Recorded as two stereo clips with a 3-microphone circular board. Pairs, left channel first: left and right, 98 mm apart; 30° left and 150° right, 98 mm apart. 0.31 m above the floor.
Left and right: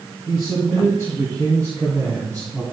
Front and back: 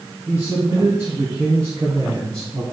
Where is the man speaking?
145° left, 3.5 m; by 2.6 s 170° left, 2.5 m.